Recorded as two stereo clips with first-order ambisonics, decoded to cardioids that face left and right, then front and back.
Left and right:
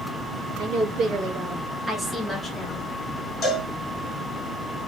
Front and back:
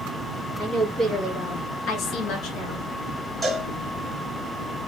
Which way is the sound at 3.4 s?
100° left.